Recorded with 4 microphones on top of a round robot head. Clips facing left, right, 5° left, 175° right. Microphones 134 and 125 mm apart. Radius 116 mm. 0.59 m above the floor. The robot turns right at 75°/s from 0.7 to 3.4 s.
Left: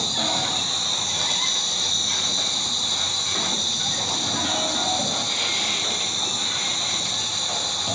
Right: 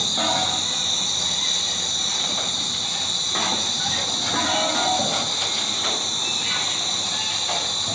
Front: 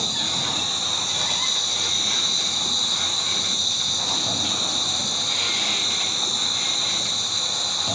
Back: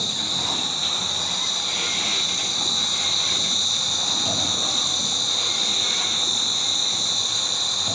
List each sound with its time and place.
0.0 s an insect: 55° right, 2 m; by 7.9 s 145° left, 2 m